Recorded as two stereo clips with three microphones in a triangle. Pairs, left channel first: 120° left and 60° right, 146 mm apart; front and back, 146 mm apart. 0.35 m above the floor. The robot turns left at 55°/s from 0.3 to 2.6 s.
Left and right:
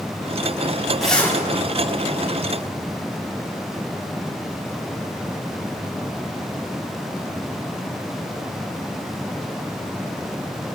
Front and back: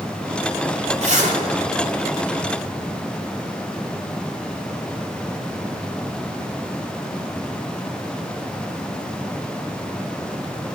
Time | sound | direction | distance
1.0 | a zipper | 150° right | 3 m